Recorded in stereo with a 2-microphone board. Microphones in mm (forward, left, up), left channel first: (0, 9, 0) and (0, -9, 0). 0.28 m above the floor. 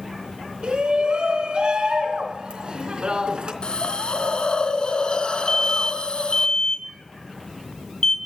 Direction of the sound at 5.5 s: 45° left (ahead or behind).